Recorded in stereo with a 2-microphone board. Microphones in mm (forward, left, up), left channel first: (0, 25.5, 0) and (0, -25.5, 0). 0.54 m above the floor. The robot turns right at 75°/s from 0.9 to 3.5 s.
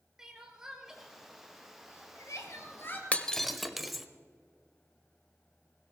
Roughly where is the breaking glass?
Left.